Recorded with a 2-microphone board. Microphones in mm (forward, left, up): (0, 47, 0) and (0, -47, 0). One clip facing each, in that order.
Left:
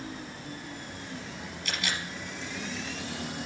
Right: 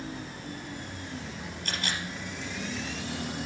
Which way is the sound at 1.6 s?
35° right (ahead or behind).